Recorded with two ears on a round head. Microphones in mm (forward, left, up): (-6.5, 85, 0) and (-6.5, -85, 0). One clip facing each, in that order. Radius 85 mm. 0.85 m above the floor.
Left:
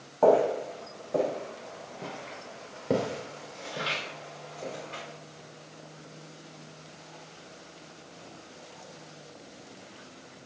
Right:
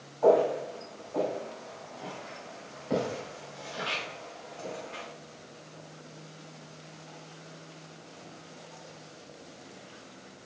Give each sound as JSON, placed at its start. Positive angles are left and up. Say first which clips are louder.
{"t": 0.2, "sound": "footsteps", "louder": "left 1 dB", "side_deg": 75, "distance_m": 3.5}